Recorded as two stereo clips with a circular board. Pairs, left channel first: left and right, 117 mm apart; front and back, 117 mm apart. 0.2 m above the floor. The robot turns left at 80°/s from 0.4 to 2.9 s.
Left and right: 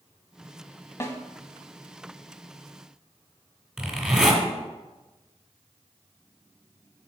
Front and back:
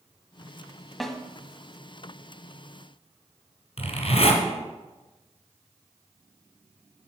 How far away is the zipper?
About 2.5 m.